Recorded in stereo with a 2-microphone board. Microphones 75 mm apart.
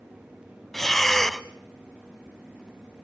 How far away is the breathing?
About 0.5 m.